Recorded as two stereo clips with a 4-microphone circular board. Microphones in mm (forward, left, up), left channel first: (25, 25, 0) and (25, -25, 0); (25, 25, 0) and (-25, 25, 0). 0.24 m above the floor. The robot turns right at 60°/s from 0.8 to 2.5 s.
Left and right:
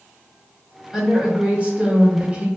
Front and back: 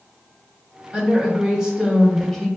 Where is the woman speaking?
160° right, 1.0 m; by 2.5 s 70° right, 1.0 m.